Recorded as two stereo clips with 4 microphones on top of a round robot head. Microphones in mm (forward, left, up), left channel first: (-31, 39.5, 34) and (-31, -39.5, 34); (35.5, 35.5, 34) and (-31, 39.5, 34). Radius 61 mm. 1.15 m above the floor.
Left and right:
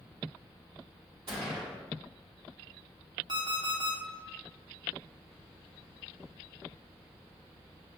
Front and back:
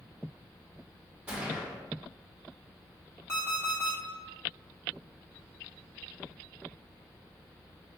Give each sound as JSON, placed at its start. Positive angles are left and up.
{"t": 1.3, "sound": "a gunshot", "azimuth_deg": -100, "distance_m": 1.2}
{"t": 3.3, "sound": "an alarm clock", "azimuth_deg": -65, "distance_m": 0.8}